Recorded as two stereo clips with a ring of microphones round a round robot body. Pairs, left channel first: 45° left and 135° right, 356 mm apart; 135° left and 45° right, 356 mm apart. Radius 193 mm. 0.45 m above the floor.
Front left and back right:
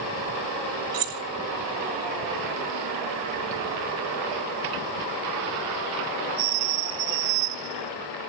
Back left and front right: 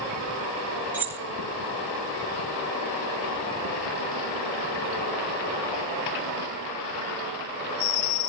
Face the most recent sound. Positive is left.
turn(degrees=-130)